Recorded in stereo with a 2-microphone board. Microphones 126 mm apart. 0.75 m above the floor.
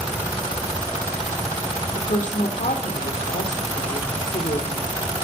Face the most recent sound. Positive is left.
turn(degrees=75)  # may be behind; listen again after turning